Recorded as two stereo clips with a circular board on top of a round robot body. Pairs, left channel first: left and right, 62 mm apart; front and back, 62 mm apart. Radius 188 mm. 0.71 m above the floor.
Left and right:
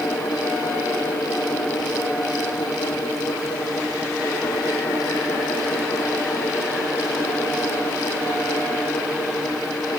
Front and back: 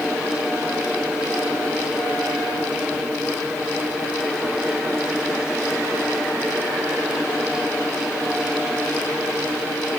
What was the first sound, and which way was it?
Only background noise.